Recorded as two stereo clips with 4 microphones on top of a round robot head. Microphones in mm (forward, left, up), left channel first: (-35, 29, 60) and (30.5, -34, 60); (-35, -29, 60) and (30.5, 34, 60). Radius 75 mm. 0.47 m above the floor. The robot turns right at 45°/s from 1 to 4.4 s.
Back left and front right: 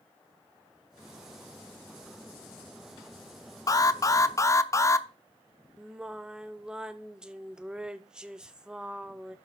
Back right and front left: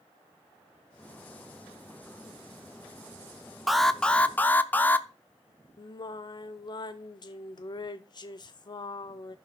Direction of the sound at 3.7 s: 130° left.